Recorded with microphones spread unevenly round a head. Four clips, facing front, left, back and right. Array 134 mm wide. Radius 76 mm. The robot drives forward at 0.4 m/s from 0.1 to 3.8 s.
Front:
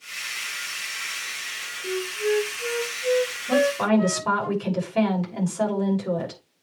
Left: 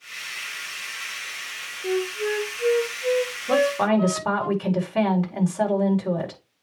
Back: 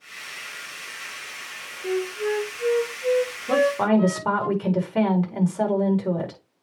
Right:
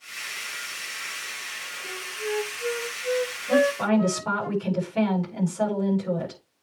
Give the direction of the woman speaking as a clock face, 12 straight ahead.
7 o'clock.